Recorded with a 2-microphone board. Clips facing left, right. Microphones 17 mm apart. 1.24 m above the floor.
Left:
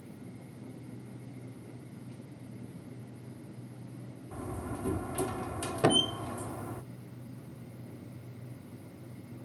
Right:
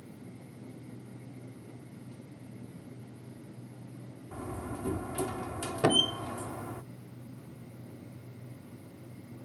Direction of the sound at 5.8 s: 35° right (ahead or behind).